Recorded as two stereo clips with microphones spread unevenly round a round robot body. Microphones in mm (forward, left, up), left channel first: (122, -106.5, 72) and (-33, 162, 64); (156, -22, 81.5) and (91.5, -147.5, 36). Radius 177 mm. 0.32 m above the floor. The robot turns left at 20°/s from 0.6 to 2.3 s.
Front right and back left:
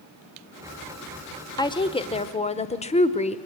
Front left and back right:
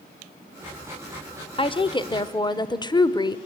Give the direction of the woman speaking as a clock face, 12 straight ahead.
12 o'clock.